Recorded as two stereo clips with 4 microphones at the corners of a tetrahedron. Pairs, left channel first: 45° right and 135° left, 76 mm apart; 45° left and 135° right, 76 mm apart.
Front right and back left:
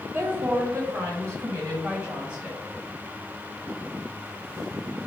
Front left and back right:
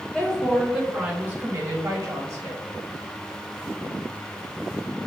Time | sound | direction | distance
0.1 | a woman speaking | 115° left | 1.3 m